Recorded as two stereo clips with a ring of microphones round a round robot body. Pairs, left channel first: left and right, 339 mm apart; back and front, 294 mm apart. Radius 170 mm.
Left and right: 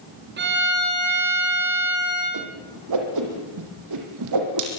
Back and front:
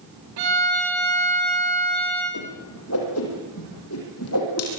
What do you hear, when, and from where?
0.4 s a violin: 30° right, 6.5 m
2.3 s a whoosh: 130° right, 5.5 m